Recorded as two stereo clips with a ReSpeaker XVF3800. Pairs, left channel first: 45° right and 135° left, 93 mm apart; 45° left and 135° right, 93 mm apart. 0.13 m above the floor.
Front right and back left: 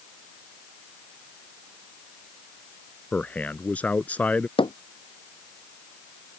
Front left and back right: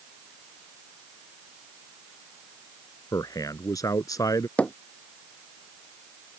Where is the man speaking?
20° left.